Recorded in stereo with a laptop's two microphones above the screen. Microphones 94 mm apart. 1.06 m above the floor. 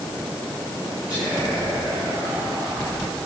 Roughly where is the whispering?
Centre.